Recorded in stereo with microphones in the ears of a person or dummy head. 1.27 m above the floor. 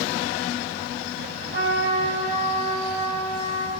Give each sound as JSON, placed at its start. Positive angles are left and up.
{"t": 1.5, "sound": "a trumpet", "side_deg": -80, "distance_m": 4.0}